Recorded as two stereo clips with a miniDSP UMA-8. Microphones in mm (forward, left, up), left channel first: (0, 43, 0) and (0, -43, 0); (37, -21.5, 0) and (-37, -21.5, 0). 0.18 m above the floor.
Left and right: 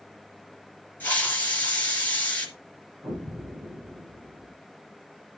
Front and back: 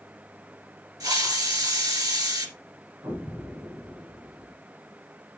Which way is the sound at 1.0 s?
160° left.